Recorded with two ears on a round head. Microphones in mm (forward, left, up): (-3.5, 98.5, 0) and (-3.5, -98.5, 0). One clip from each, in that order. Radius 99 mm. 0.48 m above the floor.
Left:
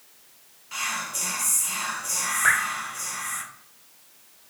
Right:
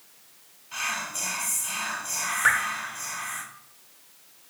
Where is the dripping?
Centre (ahead or behind), 1.0 m.